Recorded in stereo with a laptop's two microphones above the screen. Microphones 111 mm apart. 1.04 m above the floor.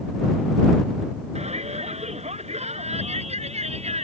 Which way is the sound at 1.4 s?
80° right.